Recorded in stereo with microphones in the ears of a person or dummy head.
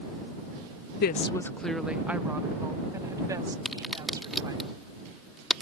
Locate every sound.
1.0 s a woman speaking: 55° left (ahead or behind); by 4.6 s 15° right (ahead or behind)
3.6 s a crack: centre (ahead or behind)